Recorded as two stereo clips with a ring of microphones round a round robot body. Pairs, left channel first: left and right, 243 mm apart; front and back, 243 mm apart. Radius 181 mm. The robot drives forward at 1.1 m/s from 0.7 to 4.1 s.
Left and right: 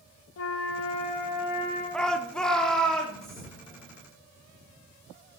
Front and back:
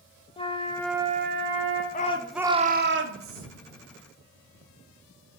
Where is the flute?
70° left, 0.6 m; by 1.8 s 155° left, 1.2 m.